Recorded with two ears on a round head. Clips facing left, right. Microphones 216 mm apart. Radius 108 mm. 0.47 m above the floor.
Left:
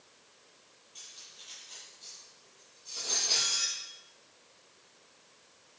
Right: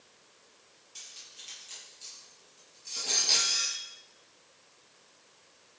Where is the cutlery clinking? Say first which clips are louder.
Even; 40° right (ahead or behind), 7 m.